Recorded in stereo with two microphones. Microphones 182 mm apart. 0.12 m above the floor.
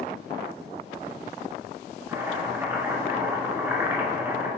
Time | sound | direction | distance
2.1 | chopping | 15° right (ahead or behind) | 1.1 m